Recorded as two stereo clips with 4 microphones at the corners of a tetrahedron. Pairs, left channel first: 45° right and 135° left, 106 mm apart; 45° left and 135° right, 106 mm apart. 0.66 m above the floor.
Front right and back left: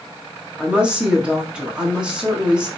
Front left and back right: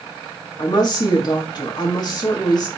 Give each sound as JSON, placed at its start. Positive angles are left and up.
{"t": 0.6, "sound": "a woman speaking", "azimuth_deg": 60, "distance_m": 1.3}